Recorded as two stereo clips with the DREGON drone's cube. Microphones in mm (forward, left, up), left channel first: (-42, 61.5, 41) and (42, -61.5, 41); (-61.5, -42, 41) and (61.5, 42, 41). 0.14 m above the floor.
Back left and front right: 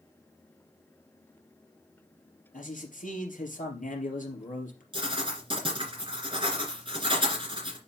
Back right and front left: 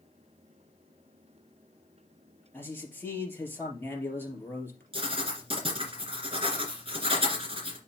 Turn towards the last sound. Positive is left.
turn(degrees=-10)